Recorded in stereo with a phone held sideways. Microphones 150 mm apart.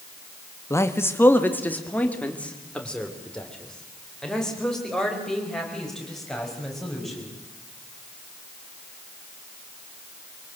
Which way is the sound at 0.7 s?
20° left (ahead or behind).